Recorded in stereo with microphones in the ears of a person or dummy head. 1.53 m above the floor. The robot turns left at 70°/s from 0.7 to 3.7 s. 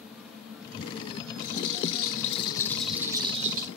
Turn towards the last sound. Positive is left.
turn(degrees=-60)